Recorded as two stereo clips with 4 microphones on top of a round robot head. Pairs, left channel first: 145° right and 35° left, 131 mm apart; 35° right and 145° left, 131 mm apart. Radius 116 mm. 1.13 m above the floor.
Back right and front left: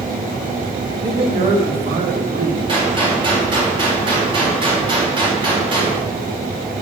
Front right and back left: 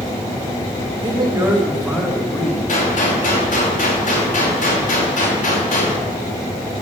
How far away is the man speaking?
About 2 m.